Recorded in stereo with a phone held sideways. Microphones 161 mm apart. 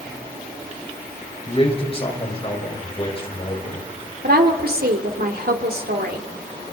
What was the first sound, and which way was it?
A man speaking, 35° left (ahead or behind).